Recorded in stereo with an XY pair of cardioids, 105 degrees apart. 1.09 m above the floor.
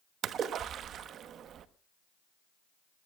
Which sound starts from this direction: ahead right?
A splash, at 0.2 s.